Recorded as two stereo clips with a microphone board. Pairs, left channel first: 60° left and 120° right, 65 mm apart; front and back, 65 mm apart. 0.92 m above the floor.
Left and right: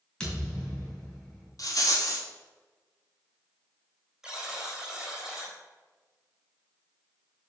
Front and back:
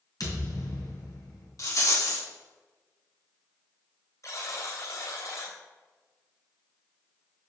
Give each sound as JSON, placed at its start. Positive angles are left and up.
{"t": 0.2, "sound": "a thud", "azimuth_deg": -20, "distance_m": 4.5}
{"t": 1.6, "sound": "a rattle", "azimuth_deg": 35, "distance_m": 3.0}
{"t": 4.2, "sound": "a buzzer", "azimuth_deg": -40, "distance_m": 3.5}